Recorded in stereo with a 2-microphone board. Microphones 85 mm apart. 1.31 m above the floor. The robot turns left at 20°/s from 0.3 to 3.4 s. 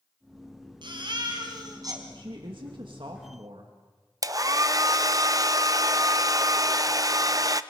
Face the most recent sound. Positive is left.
turn(degrees=-40)  # may be behind; listen again after turning